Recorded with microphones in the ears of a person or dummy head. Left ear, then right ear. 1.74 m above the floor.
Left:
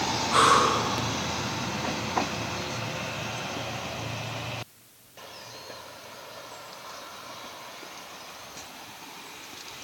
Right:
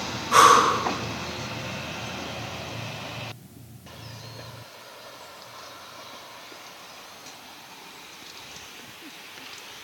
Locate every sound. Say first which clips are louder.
0.3 s breathing: right 5 dB; 35° right (ahead or behind), 2.5 m